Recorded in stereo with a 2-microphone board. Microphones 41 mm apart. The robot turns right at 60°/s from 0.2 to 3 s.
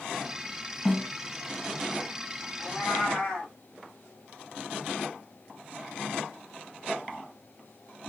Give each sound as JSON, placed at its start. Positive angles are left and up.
{"t": 0.8, "sound": "a snare drum", "side_deg": 10, "distance_m": 1.2}
{"t": 2.6, "sound": "a cat meowing", "side_deg": 20, "distance_m": 0.8}